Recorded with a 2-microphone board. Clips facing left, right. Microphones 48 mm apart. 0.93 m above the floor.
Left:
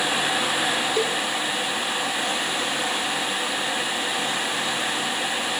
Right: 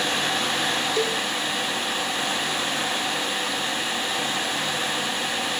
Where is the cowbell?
15° left (ahead or behind), 1.5 m.